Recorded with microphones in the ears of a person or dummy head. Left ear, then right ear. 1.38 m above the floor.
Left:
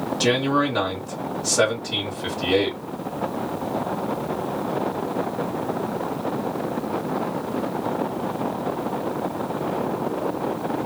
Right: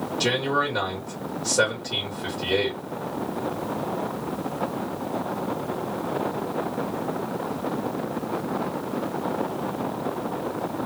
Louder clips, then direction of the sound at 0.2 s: Left 2 dB; centre (ahead or behind).